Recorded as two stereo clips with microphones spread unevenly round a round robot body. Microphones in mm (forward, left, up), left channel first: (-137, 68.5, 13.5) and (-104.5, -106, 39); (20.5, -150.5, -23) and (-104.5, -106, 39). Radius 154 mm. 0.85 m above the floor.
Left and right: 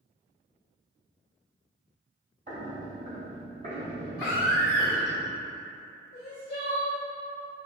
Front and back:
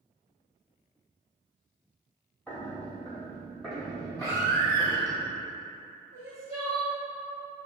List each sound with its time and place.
2.5 s footsteps: 110° right, 1.6 m; by 5.2 s 120° right, 3 m
4.2 s a baby crying: 70° left, 0.8 m
6.1 s crying: 40° left, 1.6 m